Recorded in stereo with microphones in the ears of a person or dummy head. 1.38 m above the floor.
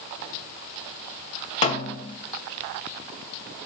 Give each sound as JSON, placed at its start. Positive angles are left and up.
{"t": 1.6, "sound": "a snare drum", "side_deg": 35, "distance_m": 2.0}